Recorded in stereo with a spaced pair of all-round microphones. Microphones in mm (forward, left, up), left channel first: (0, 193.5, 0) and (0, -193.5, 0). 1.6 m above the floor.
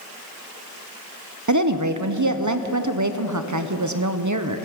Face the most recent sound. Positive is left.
turn(degrees=-50)  # may be behind; listen again after turning